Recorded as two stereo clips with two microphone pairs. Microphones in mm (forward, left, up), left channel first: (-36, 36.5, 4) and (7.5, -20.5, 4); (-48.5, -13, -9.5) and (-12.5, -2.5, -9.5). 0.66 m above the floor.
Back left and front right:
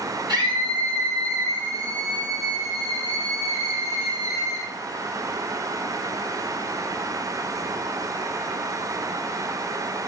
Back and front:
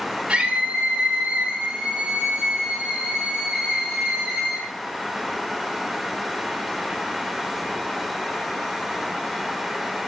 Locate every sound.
0.3 s a scream: 55° right, 6 m; by 4.7 s 85° right, 5 m